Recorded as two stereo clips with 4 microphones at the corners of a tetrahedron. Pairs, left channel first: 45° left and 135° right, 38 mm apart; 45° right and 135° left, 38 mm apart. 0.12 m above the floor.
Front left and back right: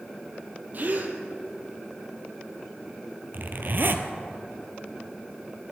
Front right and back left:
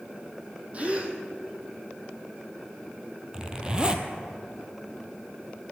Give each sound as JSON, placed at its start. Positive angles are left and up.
{"t": 0.7, "sound": "a gasp", "azimuth_deg": -170, "distance_m": 1.5}
{"t": 3.3, "sound": "a zipper", "azimuth_deg": -160, "distance_m": 1.1}